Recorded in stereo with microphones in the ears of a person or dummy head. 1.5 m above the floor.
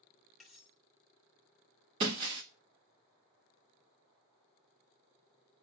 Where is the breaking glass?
20° right (ahead or behind), 0.8 m.